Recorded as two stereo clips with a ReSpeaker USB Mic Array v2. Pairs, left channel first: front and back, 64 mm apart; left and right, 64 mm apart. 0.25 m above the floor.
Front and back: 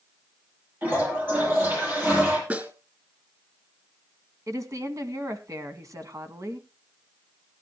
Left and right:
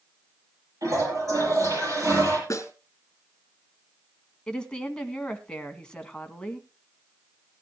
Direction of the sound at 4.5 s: 165° left.